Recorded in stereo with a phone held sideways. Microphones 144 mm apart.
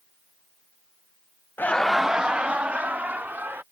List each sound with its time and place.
1.6 s laughter: 15° left (ahead or behind); by 3.6 s 15° right (ahead or behind)